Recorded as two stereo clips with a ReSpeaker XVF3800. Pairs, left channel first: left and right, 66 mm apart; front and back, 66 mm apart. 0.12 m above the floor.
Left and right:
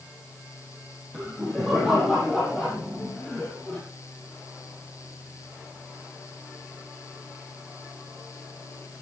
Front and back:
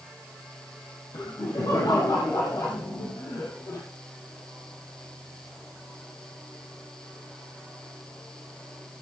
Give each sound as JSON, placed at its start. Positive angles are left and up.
{"t": 1.1, "sound": "laughter", "azimuth_deg": -5, "distance_m": 6.0}